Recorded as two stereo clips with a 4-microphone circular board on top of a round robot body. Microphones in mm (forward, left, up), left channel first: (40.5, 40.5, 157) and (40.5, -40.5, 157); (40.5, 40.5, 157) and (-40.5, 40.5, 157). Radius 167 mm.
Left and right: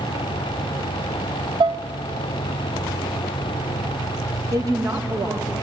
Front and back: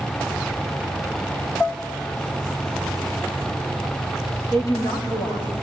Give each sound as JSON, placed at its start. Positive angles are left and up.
{"t": 1.6, "sound": "dishes clattering", "azimuth_deg": -70, "distance_m": 0.5}
{"t": 4.5, "sound": "a woman speaking", "azimuth_deg": -45, "distance_m": 3.0}